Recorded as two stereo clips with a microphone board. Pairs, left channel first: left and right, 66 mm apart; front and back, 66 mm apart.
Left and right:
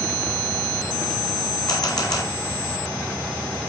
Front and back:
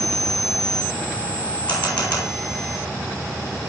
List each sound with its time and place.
1.7 s a camera shutter: 70° left, 5 m